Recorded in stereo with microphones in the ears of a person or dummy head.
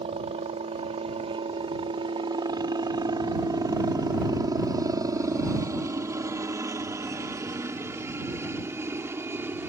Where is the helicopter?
30° right (ahead or behind); by 9.7 s 10° right (ahead or behind).